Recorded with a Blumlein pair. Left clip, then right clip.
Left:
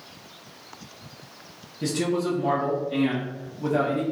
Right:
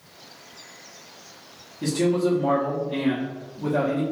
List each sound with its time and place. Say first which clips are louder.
1.8 s a man speaking: right 3 dB; straight ahead, 0.9 m